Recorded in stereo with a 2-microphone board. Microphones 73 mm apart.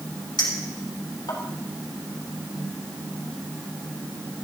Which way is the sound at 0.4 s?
80° left.